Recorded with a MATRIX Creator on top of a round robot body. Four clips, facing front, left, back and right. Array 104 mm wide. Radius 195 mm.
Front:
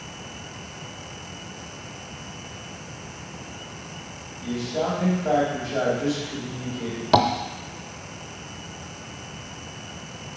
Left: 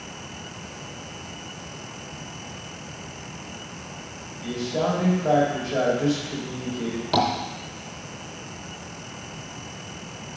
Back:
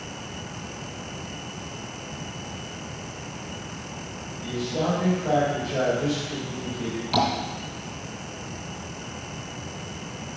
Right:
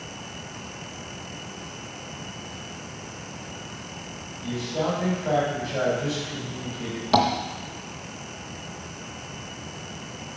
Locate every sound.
4.4 s a man speaking: 90° left, 3 m
7.1 s tapping: 5° right, 0.6 m